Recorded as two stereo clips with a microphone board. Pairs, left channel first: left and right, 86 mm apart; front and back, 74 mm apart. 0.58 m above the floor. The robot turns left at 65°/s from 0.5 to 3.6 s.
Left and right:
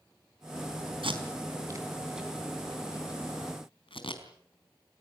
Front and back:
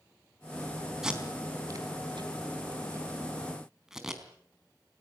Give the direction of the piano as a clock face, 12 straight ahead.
No piano in this recording.